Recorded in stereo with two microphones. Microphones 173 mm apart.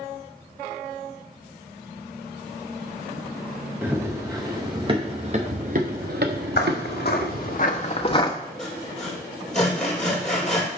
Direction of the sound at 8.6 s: 5° left (ahead or behind).